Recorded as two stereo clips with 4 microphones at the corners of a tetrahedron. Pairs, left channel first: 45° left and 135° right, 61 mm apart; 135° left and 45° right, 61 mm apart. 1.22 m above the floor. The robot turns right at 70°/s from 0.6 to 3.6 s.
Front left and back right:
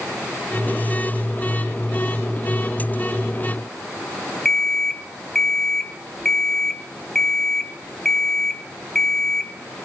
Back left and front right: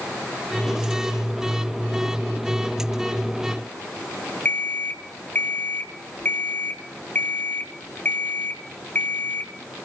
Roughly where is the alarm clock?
Behind left.